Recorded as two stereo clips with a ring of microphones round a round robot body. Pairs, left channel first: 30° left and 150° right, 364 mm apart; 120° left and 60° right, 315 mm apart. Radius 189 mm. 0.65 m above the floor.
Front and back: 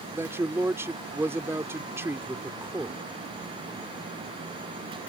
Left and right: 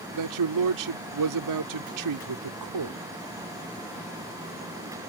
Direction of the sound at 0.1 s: 65° right.